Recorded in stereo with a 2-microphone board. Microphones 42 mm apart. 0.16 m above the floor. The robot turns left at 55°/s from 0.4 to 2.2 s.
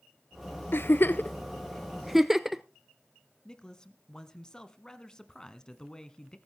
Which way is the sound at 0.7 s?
65° left (ahead or behind).